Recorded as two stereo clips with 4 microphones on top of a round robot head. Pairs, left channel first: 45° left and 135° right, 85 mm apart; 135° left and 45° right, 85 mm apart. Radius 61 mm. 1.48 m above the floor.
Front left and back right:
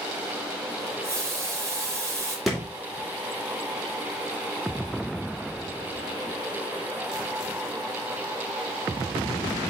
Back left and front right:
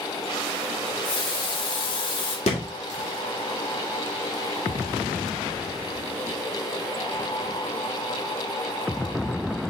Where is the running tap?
165° left, 2 m.